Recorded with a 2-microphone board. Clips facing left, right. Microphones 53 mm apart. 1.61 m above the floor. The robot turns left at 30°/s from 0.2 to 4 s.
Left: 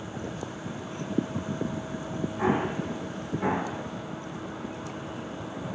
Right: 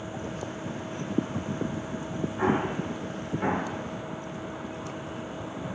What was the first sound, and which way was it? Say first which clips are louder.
An explosion: even; 30° right (ahead or behind).